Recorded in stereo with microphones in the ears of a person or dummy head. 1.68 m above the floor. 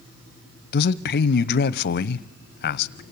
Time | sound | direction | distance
0.7 | a man speaking | 65° left (ahead or behind) | 0.8 m